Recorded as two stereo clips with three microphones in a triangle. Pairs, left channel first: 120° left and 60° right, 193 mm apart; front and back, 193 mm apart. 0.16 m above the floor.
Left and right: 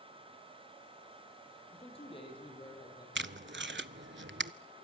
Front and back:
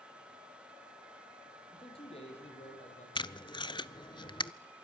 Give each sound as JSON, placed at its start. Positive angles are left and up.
{"t": 1.7, "sound": "a man speaking", "azimuth_deg": 65, "distance_m": 6.5}
{"t": 3.1, "sound": "tape being pulled", "azimuth_deg": -65, "distance_m": 0.6}